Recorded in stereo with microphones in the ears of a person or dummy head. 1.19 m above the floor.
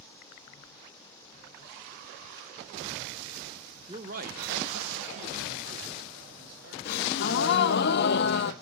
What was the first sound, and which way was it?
A man speaking, 15° right (ahead or behind).